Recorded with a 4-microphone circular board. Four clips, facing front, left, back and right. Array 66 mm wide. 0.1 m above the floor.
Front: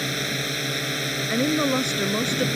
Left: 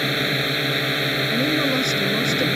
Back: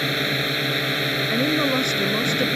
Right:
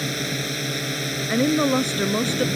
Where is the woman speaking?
85° right.